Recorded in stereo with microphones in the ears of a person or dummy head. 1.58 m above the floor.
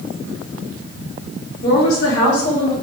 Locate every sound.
1.6 s a woman speaking: 60° left (ahead or behind), 2 m; by 2.7 s 80° left, 2 m